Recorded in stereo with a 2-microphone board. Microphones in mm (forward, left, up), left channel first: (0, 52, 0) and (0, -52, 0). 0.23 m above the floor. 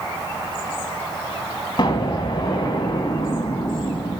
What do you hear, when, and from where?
1.8 s an explosion: 50° left (ahead or behind), 1.0 m